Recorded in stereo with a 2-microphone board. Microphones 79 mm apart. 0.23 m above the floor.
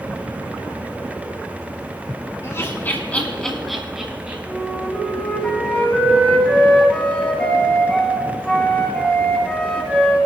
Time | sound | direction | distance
2.4 | laughter | 35° left (ahead or behind) | 2.5 m
4.5 | a flute | 15° left (ahead or behind) | 2 m